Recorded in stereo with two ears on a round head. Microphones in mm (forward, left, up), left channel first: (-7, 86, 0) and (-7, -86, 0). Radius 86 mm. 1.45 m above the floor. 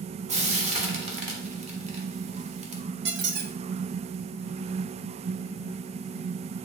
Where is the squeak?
60° right (ahead or behind), 0.8 m.